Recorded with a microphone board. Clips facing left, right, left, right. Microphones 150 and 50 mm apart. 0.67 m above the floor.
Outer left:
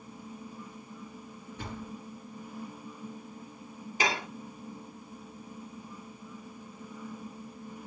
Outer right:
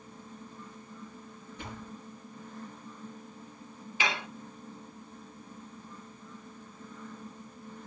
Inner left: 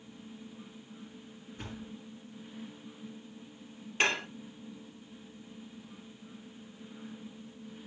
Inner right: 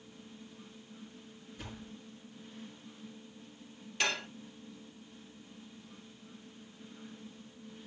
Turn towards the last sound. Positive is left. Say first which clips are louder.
# outer left 3 dB, inner left 4 dB
turn(degrees=40)  # may be behind; listen again after turning